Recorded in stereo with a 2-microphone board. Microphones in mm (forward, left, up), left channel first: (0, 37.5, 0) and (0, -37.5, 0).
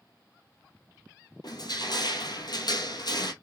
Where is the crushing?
65° left (ahead or behind), 1.0 m.